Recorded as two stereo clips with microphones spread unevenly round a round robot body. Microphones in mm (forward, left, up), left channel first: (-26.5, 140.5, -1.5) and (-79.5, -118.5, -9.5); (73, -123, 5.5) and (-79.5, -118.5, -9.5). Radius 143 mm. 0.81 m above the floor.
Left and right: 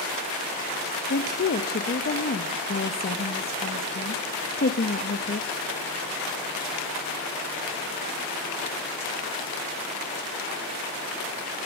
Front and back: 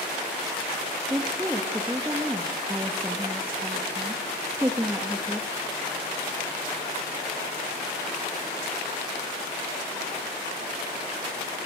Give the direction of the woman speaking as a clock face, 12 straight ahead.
8 o'clock.